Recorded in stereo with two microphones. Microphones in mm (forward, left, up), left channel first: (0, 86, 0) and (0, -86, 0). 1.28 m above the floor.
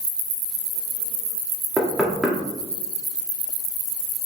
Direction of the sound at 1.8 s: Centre (ahead or behind).